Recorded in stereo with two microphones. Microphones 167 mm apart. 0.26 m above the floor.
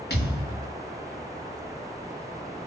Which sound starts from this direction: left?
A thud, at 0.1 s.